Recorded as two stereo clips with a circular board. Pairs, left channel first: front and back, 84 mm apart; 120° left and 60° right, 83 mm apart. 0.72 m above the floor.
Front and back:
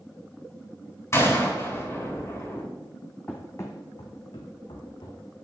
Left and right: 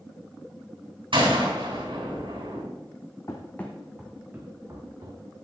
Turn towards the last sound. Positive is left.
turn(degrees=-20)